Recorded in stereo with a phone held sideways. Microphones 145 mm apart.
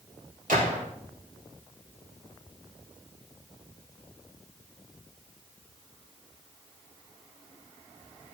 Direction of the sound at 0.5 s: 85° right.